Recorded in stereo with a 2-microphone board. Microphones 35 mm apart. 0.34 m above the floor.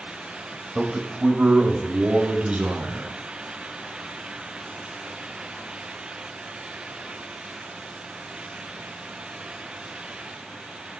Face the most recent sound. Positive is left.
turn(degrees=-45)  # may be behind; listen again after turning